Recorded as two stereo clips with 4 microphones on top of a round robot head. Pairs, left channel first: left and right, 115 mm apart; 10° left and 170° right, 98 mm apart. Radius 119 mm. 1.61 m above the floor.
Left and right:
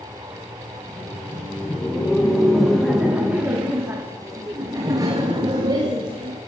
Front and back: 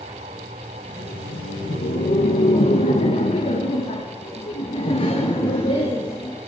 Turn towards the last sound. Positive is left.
turn(degrees=-40)